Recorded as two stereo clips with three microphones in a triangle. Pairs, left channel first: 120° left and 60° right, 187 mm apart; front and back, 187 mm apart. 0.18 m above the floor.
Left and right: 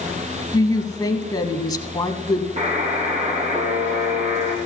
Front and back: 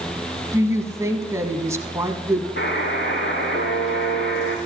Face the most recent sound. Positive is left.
turn(degrees=-5)